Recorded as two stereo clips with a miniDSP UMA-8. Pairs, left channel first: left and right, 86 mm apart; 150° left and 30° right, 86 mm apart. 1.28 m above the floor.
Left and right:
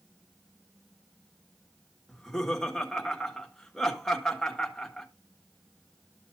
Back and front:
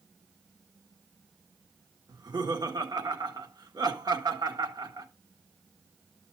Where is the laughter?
5° left, 1.5 m.